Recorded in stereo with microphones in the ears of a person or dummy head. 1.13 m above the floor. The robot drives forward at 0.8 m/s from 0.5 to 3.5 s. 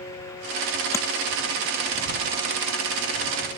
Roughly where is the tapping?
Centre.